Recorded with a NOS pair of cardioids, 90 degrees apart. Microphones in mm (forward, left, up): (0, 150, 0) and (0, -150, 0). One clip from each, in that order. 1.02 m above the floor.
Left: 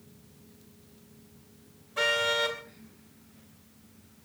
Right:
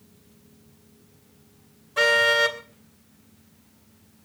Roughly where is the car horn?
Ahead right.